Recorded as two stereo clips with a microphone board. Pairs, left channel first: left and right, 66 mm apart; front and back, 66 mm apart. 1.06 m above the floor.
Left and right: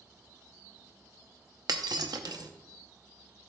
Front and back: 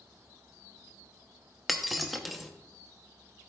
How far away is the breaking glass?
About 0.8 m.